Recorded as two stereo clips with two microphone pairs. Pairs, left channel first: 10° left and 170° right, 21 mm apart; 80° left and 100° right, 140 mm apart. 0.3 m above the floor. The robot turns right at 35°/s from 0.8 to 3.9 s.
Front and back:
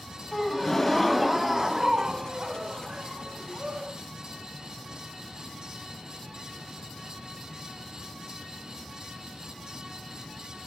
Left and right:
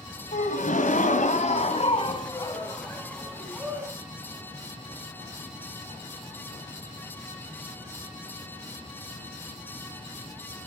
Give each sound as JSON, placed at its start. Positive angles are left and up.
{"t": 0.3, "sound": "a gasp", "azimuth_deg": 85, "distance_m": 2.0}